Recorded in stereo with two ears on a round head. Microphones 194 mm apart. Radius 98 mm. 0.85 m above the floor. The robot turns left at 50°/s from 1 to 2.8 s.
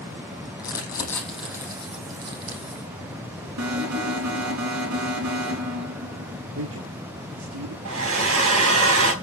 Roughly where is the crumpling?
Centre.